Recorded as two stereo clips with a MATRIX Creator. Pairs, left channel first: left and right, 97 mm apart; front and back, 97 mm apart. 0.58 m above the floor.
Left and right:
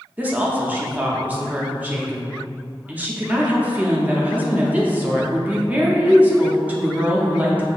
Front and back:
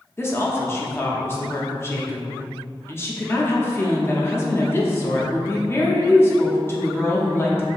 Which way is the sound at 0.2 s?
35° right.